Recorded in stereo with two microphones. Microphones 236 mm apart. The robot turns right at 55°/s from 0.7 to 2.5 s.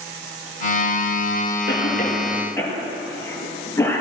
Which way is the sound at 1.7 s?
55° left (ahead or behind).